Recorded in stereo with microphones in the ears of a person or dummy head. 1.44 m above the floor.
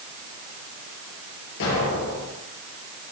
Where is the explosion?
70° left (ahead or behind), 7.5 m.